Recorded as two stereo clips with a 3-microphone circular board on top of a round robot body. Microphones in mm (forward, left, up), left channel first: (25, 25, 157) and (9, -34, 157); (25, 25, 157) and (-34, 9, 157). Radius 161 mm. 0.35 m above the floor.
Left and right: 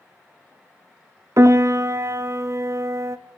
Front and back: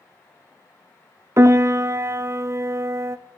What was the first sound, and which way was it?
A piano, 130° right.